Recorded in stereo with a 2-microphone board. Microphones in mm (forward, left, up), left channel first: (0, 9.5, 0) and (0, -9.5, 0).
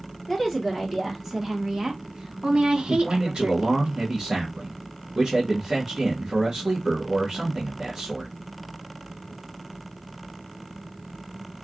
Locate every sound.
0.3 s a woman speaking: 5° right (ahead or behind), 1.5 m; by 3.9 s 60° right (ahead or behind), 1.2 m
2.9 s a man speaking: 25° right (ahead or behind), 1.0 m